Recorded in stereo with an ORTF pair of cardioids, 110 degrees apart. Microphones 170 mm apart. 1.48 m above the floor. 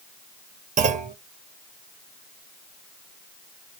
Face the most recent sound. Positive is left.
turn(degrees=-45)